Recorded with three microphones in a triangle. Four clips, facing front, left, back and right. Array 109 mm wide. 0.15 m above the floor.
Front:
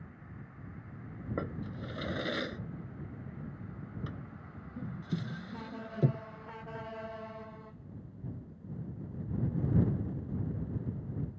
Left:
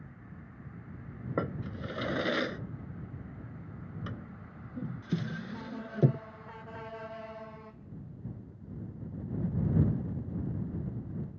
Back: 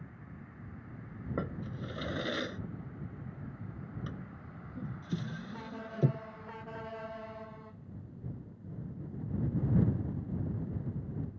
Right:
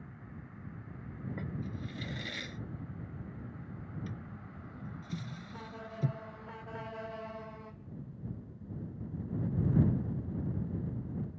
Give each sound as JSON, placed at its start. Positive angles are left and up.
{"t": 1.4, "sound": "a drawer", "azimuth_deg": 85}